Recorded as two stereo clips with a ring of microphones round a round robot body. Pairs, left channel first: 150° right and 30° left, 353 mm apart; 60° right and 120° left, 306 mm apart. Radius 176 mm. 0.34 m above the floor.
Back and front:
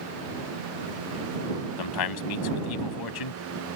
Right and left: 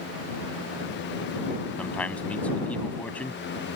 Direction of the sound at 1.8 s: 145° right.